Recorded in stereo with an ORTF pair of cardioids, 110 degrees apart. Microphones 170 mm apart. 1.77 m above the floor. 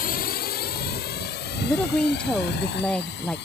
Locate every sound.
0.0 s a drone: 60° left; by 3.5 s 80° left
1.6 s a woman speaking: 5° left